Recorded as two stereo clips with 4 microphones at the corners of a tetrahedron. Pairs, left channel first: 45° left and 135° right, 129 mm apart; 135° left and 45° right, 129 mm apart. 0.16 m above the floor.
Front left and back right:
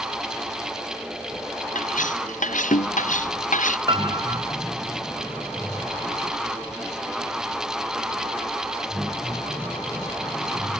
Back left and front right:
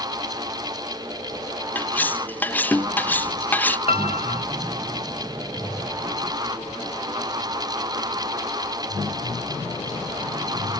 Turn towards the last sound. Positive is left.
turn(degrees=170)